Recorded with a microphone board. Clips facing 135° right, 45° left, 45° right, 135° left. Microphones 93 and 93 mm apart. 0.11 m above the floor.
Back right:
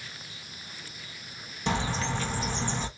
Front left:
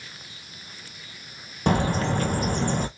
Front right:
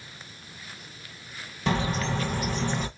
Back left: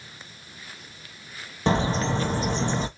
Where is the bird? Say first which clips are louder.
Front left 6 dB, back left 4 dB; 80° left, 0.8 m.